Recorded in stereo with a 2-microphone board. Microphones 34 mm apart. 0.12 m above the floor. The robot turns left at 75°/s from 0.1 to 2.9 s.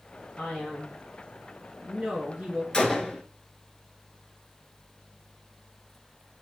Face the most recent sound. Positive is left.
turn(degrees=15)  # may be behind; listen again after turning